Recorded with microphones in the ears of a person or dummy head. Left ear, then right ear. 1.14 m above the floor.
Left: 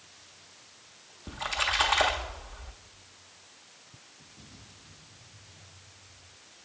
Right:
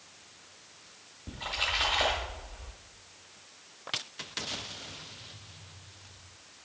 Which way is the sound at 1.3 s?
45° left (ahead or behind).